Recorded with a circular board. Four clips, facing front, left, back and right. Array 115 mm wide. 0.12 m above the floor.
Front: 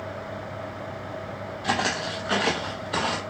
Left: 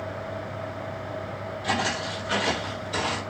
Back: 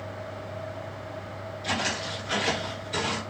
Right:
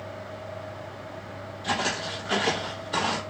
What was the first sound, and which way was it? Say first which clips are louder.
Footsteps: left 1 dB, front 5 dB; straight ahead.